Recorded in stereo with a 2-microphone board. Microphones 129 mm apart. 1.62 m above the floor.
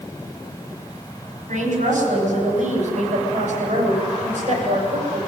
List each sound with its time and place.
1.5 s a woman speaking: 90° right, 7.5 m; by 5.2 s 75° right (ahead or behind), 8.5 m